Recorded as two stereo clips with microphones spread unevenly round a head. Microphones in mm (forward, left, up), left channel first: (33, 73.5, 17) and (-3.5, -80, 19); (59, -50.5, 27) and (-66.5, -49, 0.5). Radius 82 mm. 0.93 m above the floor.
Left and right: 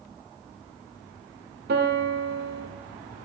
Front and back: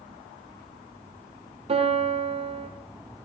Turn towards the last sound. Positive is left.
turn(degrees=-135)